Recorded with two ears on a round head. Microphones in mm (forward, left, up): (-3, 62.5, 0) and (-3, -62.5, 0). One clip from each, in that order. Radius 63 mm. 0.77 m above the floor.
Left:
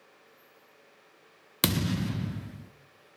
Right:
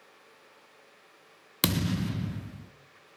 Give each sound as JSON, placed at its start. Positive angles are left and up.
{"t": 1.6, "sound": "a thud", "side_deg": 0, "distance_m": 0.5}